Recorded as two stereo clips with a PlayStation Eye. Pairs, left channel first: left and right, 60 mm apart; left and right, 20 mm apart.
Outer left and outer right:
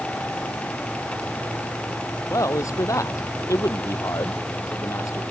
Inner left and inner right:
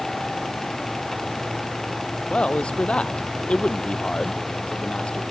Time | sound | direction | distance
2.3 | a man speaking | 60° left (ahead or behind) | ?